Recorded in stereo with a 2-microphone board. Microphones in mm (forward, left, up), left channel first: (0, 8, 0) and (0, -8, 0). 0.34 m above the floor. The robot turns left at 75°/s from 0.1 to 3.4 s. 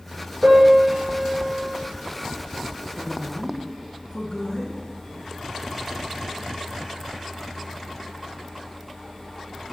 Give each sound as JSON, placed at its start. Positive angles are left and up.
{"t": 0.4, "sound": "a piano", "azimuth_deg": -95, "distance_m": 6.5}
{"t": 3.0, "sound": "a woman speaking", "azimuth_deg": 170, "distance_m": 4.0}